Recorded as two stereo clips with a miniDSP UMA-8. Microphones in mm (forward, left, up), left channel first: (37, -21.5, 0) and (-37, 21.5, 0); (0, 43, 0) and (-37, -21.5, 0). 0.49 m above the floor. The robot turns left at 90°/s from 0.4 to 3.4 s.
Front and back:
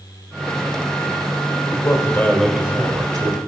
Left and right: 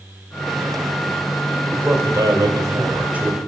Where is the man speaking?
50° right, 2.5 m; by 3.4 s 155° left, 2.5 m.